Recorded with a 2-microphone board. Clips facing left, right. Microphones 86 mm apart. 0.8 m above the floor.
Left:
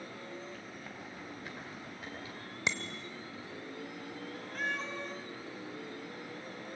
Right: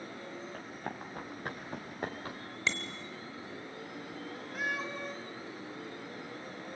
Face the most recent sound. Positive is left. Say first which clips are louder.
# right 1 dB
turn(degrees=-10)  # may be behind; listen again after turning